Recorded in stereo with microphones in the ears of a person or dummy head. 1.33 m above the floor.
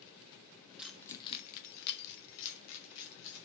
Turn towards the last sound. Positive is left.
turn(degrees=80)